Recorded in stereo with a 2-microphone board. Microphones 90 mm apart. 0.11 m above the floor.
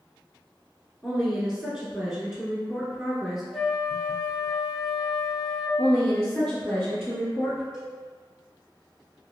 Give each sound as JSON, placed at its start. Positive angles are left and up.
{"t": 1.0, "sound": "a woman speaking", "side_deg": -10, "distance_m": 1.1}
{"t": 3.5, "sound": "a flute", "side_deg": -5, "distance_m": 0.5}
{"t": 5.8, "sound": "a woman speaking", "side_deg": 10, "distance_m": 1.8}
{"t": 7.7, "sound": "a cowbell", "side_deg": -10, "distance_m": 1.7}